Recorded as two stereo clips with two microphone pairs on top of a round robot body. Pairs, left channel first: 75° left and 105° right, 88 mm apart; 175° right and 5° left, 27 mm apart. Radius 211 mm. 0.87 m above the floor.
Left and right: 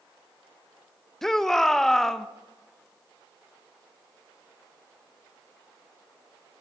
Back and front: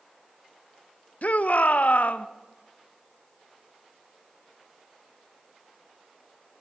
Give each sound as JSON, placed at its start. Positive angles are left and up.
{"t": 1.2, "sound": "a shout", "azimuth_deg": 160, "distance_m": 1.3}